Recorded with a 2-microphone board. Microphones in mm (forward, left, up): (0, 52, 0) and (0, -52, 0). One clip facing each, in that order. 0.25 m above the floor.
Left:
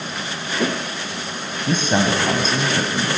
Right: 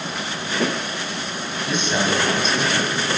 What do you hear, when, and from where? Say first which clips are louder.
1.7 s a man speaking: left 3 dB; 40° left (ahead or behind), 1.5 m